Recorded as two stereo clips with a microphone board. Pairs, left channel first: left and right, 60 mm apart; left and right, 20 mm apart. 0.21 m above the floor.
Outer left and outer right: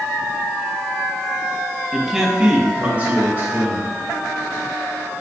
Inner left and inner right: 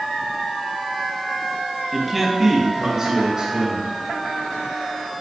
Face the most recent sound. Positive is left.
turn(degrees=-45)  # may be behind; listen again after turning